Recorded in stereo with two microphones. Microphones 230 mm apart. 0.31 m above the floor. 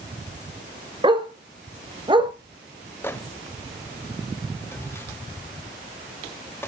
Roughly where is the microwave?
Centre.